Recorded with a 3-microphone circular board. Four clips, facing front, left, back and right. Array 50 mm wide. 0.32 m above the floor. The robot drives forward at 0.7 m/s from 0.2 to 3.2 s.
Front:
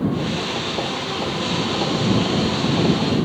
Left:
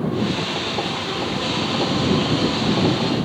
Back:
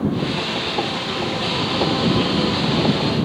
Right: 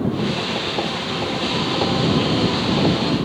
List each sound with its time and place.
Only background noise.